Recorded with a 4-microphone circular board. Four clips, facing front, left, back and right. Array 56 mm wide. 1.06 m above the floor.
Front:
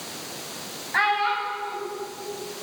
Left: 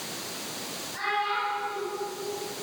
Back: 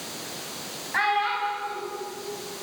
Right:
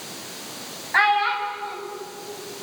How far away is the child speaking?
About 5.5 m.